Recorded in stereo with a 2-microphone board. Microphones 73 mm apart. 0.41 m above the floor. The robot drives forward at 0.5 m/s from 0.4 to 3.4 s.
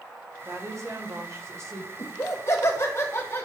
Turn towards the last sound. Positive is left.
turn(degrees=35)  # may be behind; listen again after turning